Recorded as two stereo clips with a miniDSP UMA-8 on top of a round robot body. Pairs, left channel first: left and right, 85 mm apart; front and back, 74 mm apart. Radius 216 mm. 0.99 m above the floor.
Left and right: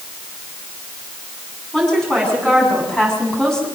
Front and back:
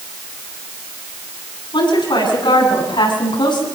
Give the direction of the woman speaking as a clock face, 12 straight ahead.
12 o'clock.